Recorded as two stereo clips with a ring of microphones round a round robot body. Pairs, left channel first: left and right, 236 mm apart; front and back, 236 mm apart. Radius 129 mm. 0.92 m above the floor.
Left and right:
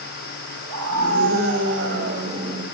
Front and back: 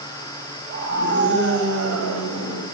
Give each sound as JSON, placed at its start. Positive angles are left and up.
{"t": 0.7, "sound": "a scream", "azimuth_deg": -120, "distance_m": 4.5}